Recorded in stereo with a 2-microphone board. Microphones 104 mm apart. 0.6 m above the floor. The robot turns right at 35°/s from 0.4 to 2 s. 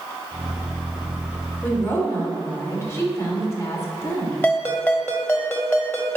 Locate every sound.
1.6 s a woman speaking: 15° left (ahead or behind), 2.5 m; by 4.3 s 30° left (ahead or behind), 2.5 m
4.4 s a ringtone: 20° left (ahead or behind), 1.4 m